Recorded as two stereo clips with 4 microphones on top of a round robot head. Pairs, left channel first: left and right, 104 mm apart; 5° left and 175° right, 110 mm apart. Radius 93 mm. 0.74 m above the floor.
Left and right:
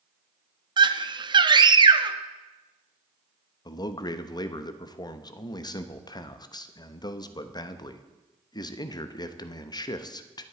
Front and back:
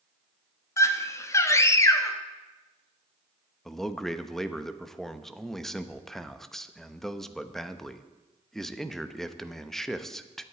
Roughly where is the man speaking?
Left.